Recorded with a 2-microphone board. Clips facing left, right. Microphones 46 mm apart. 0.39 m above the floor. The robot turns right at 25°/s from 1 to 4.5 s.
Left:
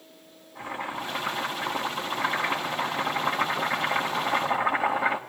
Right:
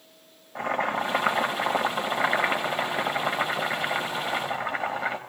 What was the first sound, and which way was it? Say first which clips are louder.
Boiling: right 7 dB; 80° right.